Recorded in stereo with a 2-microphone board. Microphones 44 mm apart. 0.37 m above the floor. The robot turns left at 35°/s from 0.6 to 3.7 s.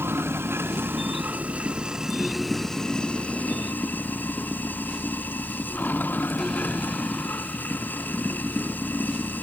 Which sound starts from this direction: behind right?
Running water, at 0.0 s.